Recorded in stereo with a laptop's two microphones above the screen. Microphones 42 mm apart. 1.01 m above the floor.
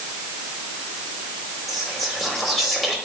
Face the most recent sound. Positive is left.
turn(degrees=5)  # may be behind; listen again after turning